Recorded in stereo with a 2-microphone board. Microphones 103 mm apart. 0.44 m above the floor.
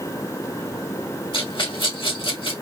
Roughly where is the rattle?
Left.